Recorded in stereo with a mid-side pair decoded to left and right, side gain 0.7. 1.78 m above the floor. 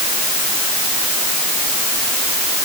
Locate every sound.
Only background noise.